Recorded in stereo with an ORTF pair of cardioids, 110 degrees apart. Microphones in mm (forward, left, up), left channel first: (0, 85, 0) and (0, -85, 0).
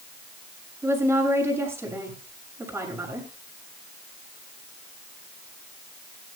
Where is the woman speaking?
15° right, 7 m.